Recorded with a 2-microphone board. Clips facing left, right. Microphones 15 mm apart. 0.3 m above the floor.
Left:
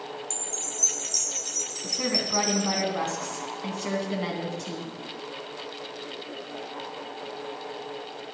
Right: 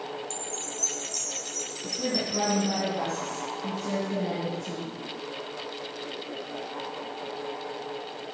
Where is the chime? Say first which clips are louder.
Left 1 dB; 20° left (ahead or behind), 0.5 m.